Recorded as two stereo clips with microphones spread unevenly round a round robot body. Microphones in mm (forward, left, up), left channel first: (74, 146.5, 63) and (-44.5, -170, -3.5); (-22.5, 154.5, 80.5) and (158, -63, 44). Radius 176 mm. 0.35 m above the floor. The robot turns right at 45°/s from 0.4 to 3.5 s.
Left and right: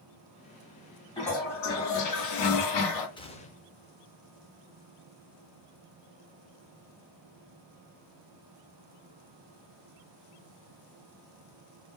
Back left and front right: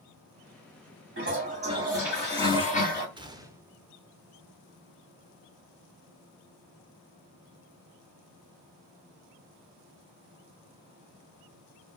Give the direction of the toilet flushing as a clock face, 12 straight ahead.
12 o'clock.